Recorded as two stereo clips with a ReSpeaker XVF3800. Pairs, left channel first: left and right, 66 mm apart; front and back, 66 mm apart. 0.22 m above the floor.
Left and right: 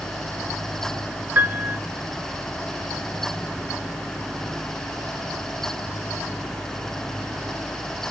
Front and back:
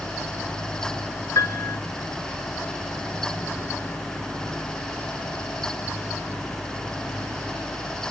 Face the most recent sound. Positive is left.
turn(degrees=-30)